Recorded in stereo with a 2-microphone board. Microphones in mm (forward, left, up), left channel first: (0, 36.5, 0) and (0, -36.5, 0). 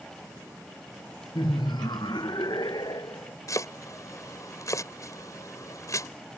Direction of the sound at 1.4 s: 75° left (ahead or behind).